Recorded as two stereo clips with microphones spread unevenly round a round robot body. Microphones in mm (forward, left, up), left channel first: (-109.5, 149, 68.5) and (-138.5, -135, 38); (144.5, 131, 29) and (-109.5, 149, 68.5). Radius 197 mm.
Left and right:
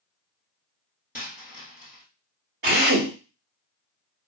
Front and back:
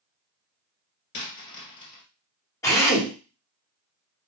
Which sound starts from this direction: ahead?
A dropped coin, at 1.1 s.